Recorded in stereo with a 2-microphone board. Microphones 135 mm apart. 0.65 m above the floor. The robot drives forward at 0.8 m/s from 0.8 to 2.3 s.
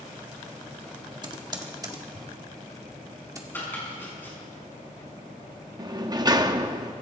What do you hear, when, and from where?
1.2 s typing on a keyboard: 30° right (ahead or behind), 1.5 m; by 3.4 s 25° right (ahead or behind), 2 m
3.5 s chopping: 15° left (ahead or behind), 6.5 m
5.8 s a sliding door: 30° right (ahead or behind), 0.9 m